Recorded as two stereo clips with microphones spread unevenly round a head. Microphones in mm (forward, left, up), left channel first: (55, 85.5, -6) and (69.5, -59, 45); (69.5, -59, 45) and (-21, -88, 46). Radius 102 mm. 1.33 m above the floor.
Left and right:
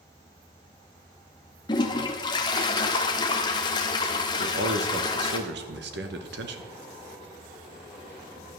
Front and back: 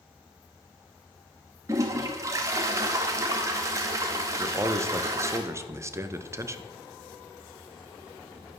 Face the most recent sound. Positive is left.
turn(degrees=-100)